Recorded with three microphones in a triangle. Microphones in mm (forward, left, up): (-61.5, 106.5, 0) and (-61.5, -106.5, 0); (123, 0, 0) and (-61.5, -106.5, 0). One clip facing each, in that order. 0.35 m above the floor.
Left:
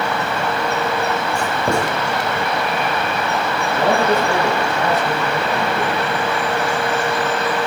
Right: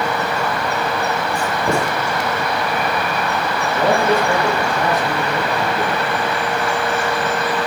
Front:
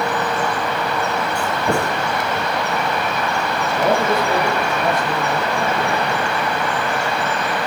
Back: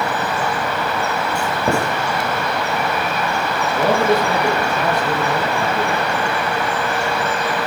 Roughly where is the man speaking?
Behind.